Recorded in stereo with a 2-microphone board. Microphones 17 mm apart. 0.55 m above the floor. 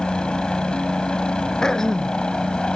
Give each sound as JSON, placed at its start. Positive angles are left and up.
{"t": 0.0, "sound": "a helicopter", "side_deg": 60}
{"t": 1.6, "sound": "throat clearing", "side_deg": 40}